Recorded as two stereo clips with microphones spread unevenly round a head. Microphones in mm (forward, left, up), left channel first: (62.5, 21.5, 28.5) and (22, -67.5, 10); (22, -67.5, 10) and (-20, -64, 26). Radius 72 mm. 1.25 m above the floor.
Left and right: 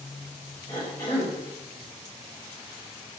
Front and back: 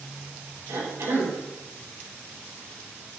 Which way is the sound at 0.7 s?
140° left.